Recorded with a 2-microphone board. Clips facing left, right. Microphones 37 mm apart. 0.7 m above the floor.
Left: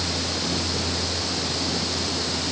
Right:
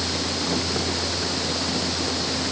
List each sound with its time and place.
Only background noise.